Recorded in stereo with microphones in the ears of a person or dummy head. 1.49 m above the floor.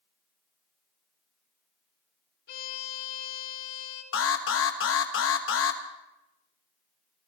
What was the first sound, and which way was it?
A violin, 60° left (ahead or behind).